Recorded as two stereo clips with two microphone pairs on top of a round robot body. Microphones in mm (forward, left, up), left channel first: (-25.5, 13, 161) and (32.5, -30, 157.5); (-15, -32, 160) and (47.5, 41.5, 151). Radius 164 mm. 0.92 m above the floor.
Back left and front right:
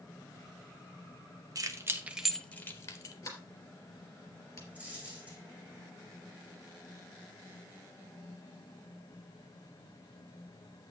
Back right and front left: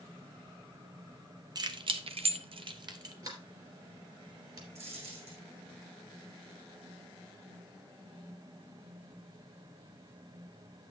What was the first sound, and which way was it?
Keys jangling, 5° left.